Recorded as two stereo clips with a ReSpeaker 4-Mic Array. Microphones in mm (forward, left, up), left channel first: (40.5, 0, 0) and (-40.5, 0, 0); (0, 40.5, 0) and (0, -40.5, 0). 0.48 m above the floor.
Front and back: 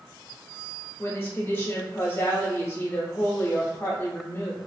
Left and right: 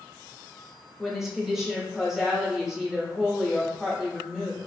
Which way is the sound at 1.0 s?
5° right.